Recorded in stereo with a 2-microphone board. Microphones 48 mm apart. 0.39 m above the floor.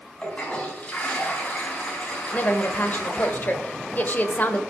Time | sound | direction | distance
0.2 | a toilet flushing | 25° left (ahead or behind) | 3 m
2.3 | a woman speaking | 40° left (ahead or behind) | 1.3 m